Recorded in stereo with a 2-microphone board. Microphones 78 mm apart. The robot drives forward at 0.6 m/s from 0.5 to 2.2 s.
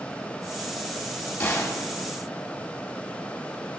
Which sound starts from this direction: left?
A gunshot, at 1.4 s.